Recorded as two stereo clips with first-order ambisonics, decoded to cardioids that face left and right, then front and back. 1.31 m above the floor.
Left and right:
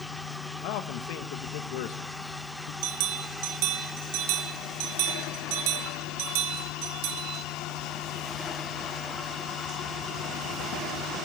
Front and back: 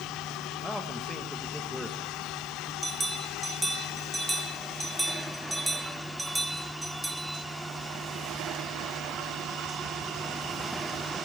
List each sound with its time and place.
0.6 s a man speaking: 90° left, 1.0 m
2.8 s a bell: 95° right, 1.2 m